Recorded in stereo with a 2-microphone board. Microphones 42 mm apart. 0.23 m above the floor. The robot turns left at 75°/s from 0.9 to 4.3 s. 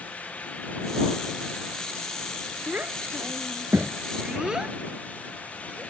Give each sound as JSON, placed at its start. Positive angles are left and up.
{"t": 2.7, "sound": "a child speaking", "side_deg": -35}